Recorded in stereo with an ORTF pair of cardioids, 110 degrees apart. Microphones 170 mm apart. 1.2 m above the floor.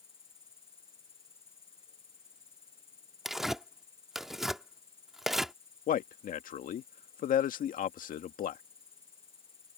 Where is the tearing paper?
Straight ahead.